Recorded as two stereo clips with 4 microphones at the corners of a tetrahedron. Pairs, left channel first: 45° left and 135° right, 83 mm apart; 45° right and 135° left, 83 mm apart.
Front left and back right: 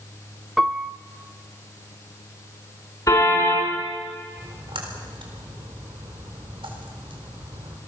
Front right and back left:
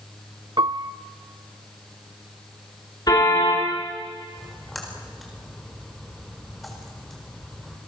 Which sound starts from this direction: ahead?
A car horn, at 3.1 s.